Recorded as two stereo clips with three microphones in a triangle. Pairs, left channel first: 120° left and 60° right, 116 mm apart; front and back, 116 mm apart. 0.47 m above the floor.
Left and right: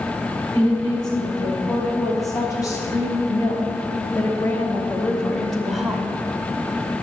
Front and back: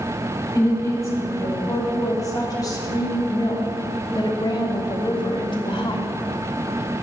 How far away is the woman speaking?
About 4 m.